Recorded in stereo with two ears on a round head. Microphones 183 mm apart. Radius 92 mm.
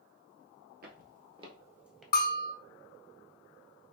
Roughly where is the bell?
Left.